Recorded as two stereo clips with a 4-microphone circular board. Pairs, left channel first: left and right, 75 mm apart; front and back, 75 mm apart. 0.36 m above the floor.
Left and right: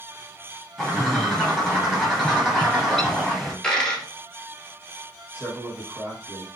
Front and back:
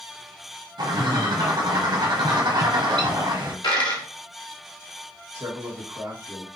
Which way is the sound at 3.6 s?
10° left.